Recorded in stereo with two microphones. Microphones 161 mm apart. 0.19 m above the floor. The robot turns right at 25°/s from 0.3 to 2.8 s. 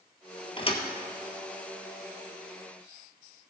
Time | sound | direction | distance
0.6 | a thud | 35° left (ahead or behind) | 1.3 m